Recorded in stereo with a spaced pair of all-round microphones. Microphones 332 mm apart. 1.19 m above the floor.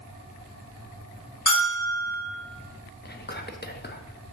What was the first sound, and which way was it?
A bell, 60° left (ahead or behind).